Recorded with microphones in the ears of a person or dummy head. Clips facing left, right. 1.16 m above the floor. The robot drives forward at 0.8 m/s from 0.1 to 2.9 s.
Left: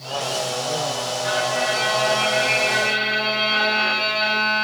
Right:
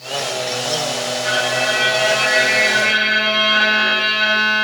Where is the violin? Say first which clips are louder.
Even; 30° right (ahead or behind), 2.5 m; by 4.6 s 20° right (ahead or behind), 3.5 m.